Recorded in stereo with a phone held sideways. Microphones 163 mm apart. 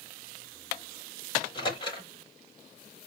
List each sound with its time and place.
1.4 s a microwave: 30° left (ahead or behind), 7.5 m